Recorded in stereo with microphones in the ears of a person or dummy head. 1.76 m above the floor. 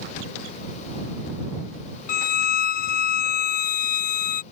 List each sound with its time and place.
2.1 s a violin: 50° left (ahead or behind)